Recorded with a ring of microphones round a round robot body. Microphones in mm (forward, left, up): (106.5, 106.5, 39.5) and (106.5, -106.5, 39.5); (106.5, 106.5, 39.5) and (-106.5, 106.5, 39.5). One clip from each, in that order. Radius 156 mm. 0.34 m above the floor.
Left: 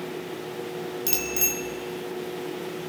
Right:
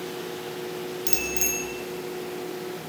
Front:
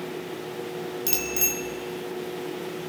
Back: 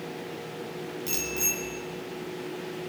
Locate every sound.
1.1 s a bicycle bell: 20° left, 3.5 m